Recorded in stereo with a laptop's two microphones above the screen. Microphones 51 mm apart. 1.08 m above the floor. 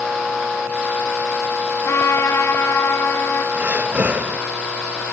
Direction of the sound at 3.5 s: 35° right (ahead or behind).